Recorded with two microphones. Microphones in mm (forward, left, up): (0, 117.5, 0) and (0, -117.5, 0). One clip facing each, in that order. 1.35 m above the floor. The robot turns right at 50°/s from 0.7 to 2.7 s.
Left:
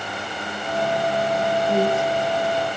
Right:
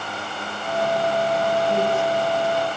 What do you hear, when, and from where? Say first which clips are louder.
1.7 s a woman speaking: left 1 dB; 140° left, 4.5 m; by 2.8 s 170° right, 4.5 m